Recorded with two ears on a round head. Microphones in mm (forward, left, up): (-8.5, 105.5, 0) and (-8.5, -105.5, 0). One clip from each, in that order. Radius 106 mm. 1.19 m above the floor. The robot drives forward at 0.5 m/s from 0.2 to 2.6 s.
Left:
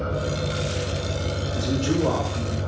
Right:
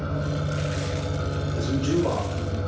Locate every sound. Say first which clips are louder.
0.0 s an engine running: left 3 dB; 20° right (ahead or behind), 1.3 m; by 2.7 s 30° right (ahead or behind), 0.9 m
1.6 s a man speaking: even; 50° left (ahead or behind), 1.9 m; by 2.6 s 65° left (ahead or behind), 1.6 m